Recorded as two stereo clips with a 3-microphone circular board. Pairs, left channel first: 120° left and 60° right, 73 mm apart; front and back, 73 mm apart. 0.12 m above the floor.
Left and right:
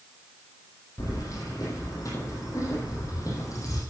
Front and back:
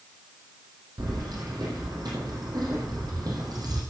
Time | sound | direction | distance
1.0 | keys jangling | 160° left | 4 m